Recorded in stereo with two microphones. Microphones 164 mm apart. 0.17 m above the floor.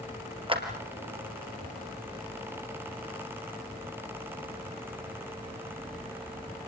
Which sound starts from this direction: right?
A clap, at 0.5 s.